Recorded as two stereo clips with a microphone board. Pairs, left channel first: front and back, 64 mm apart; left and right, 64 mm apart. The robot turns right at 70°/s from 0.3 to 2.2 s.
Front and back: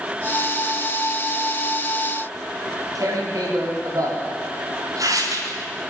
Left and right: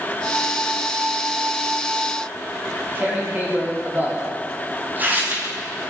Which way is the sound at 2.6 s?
150° right.